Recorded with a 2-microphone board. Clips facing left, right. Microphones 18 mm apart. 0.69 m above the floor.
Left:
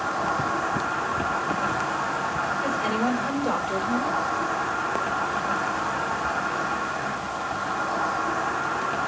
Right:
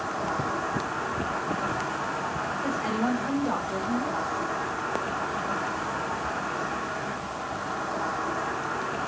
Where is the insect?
45° left (ahead or behind), 2.5 m.